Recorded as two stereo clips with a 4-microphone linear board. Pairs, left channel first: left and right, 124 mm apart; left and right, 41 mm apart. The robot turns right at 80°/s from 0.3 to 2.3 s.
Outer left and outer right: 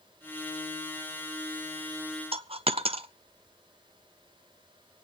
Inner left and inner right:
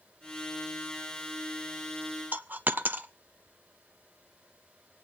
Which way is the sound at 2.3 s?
45° right (ahead or behind).